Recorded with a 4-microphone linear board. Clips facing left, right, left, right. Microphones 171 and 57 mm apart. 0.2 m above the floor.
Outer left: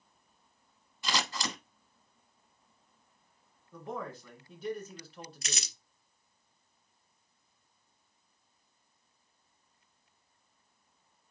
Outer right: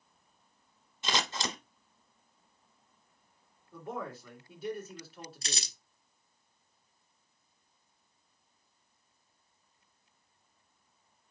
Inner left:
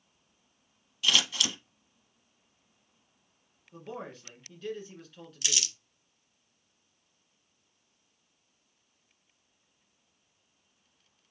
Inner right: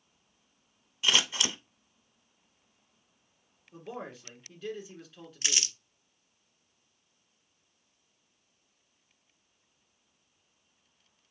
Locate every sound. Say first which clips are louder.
1.0 s scissors: outer right 1 dB, even; 25° right (ahead or behind), 0.7 m
3.7 s a man speaking: even, even; 5° right (ahead or behind), 2 m
5.4 s crumpling: even, inner right 1 dB; 35° right (ahead or behind), 0.6 m